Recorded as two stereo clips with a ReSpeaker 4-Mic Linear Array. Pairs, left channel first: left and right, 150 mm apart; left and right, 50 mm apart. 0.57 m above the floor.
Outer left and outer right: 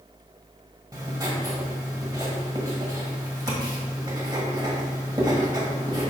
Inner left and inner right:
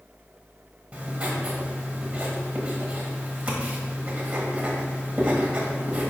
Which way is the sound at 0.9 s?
25° right (ahead or behind).